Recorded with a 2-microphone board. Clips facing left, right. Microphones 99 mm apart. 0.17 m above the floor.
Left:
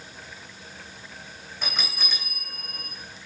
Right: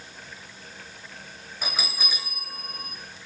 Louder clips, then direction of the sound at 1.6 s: Right 1 dB; 5° right (ahead or behind).